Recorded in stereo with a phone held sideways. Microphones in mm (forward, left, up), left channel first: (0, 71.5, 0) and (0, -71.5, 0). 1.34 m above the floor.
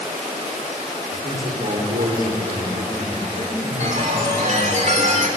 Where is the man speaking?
80° right, 5 m.